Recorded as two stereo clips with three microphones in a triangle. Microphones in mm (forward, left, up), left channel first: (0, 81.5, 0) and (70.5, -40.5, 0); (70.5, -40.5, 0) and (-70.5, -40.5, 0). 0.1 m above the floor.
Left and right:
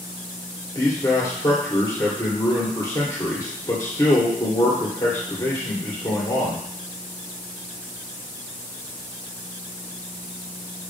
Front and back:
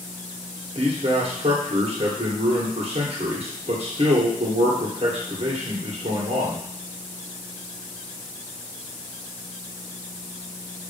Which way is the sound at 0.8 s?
Straight behind.